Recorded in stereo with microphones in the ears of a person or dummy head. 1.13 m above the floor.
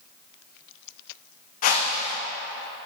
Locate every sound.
1.6 s a whoosh: 50° left (ahead or behind), 0.6 m